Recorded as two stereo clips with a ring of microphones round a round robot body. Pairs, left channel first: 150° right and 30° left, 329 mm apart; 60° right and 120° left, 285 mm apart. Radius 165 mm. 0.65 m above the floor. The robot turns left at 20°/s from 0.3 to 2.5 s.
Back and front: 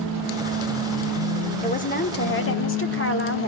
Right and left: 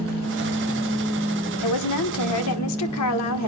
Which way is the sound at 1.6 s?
80° right.